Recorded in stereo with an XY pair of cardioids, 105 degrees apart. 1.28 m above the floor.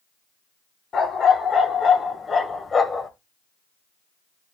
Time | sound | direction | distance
0.9 | a dog barking | 50° left | 2.5 m